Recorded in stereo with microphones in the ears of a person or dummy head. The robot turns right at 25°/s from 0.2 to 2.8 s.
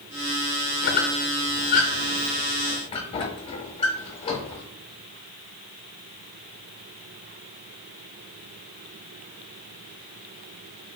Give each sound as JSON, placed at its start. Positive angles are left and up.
{"t": 0.8, "sound": "a squeak", "side_deg": 50, "distance_m": 0.6}